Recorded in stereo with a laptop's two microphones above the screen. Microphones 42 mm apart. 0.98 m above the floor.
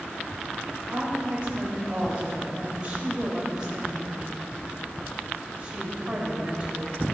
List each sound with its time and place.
0.9 s a woman speaking: 25° right (ahead or behind), 4 m